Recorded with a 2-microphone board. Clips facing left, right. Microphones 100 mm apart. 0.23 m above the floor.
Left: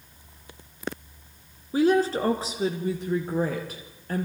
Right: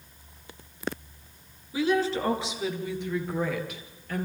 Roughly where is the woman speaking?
Left.